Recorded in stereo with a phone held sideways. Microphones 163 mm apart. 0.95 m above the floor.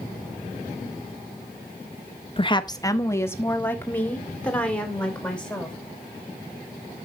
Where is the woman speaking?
35° left (ahead or behind), 0.7 m; by 5.8 s 5° left (ahead or behind), 3.5 m.